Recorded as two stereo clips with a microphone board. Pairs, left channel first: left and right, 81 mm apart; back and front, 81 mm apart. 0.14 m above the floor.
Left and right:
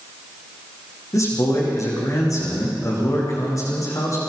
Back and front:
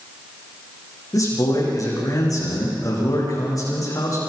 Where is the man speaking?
135° left, 10 m.